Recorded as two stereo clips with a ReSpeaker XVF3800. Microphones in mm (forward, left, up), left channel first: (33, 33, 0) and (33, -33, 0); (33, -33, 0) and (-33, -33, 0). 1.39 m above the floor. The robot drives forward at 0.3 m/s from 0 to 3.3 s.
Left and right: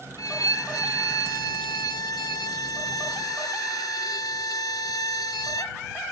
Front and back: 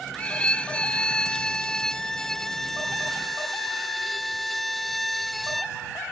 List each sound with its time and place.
0.2 s a violin: 70° left; by 5.8 s 90° left